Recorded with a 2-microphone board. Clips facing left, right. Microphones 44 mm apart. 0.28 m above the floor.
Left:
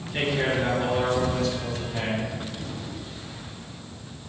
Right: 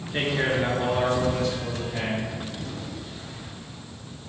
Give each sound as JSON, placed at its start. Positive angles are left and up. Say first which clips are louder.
{"t": 0.1, "sound": "a man speaking", "louder": "even", "side_deg": -25, "distance_m": 4.5}